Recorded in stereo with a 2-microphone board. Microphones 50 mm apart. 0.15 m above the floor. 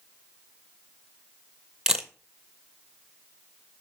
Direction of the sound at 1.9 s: 10° right (ahead or behind).